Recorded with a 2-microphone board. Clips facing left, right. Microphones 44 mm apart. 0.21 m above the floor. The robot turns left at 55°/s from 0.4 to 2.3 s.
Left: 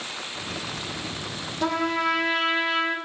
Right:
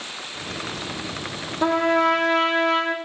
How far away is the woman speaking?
No woman speaking in this recording.